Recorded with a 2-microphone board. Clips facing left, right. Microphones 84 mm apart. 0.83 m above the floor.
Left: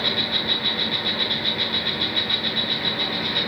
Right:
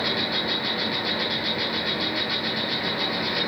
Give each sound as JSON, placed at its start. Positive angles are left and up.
{"t": 0.0, "sound": "an insect", "side_deg": -5, "distance_m": 1.3}